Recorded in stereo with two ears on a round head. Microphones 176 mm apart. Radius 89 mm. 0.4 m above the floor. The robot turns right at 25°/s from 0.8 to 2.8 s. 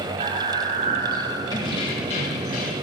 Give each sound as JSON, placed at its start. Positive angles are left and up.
{"t": 0.2, "sound": "breathing", "side_deg": -40, "distance_m": 1.1}
{"t": 1.5, "sound": "keys jangling", "azimuth_deg": 25, "distance_m": 1.0}